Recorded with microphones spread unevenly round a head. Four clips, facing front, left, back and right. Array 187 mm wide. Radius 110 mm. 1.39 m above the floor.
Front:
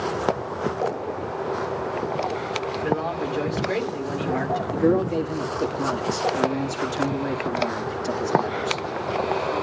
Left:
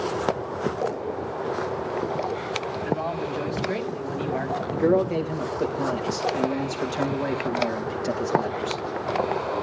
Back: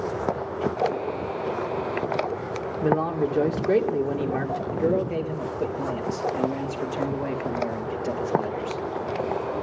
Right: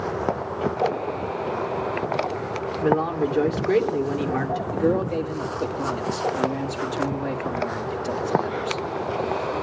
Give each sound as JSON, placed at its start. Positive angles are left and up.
{"t": 2.8, "sound": "a man speaking", "azimuth_deg": -155, "distance_m": 2.0}
{"t": 4.7, "sound": "a man speaking", "azimuth_deg": 125, "distance_m": 2.0}